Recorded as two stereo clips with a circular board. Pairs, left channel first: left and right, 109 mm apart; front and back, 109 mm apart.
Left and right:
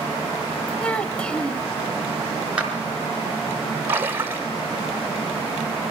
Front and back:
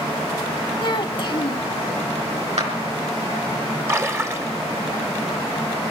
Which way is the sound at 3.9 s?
140° right.